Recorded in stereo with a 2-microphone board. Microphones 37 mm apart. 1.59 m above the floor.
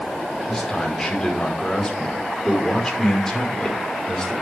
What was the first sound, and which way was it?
A man speaking, 15° left (ahead or behind).